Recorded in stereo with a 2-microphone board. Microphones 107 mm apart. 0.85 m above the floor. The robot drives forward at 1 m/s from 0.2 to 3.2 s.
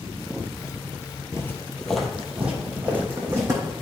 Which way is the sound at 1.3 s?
30° left (ahead or behind).